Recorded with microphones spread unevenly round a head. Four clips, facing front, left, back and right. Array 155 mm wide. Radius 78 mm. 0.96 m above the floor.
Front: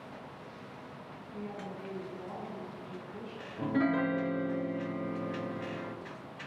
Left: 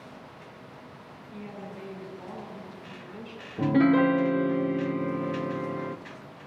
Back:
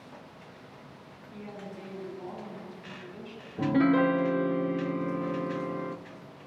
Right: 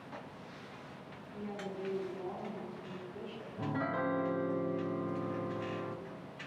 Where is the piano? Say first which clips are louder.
Left 14 dB, back 6 dB; 115° left, 0.8 m.